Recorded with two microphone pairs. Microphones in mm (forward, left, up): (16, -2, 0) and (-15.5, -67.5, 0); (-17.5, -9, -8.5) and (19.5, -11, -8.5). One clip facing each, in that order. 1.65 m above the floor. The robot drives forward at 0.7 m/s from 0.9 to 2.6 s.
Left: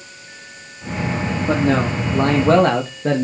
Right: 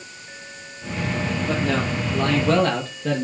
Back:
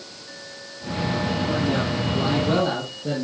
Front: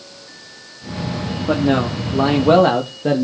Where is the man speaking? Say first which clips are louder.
Left 7 dB, front 11 dB; 5° left, 3 m.